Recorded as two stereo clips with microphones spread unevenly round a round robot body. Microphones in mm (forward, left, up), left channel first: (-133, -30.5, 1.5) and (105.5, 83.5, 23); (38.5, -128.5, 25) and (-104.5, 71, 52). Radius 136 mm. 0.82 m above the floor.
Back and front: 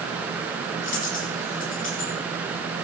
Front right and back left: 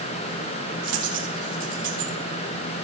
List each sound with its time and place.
0.8 s a dropped coin: 160° left, 6 m